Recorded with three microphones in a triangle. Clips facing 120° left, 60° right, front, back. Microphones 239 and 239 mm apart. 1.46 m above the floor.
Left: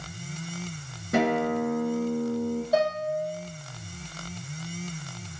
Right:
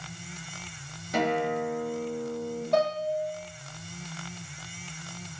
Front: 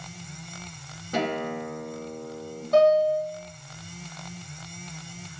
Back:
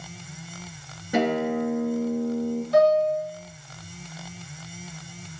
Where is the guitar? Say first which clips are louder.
Left 3 dB, back 6 dB; 105° left, 6 m.